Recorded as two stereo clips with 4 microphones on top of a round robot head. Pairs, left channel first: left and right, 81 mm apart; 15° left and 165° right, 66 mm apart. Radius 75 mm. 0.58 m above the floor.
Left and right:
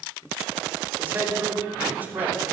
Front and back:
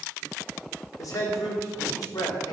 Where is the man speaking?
25° right, 3 m.